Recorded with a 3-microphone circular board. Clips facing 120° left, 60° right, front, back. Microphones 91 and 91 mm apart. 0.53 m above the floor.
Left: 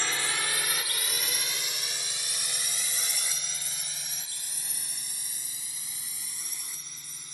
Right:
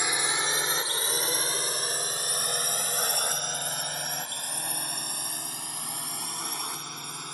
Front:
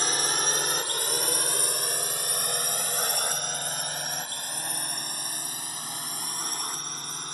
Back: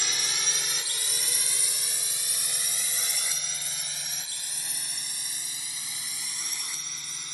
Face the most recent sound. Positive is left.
turn(degrees=-40)